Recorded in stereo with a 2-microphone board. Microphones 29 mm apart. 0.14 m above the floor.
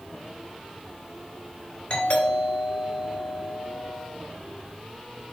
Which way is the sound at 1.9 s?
45° left (ahead or behind).